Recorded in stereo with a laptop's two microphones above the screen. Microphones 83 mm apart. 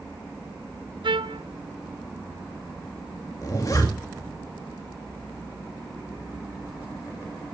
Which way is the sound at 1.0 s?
70° right (ahead or behind).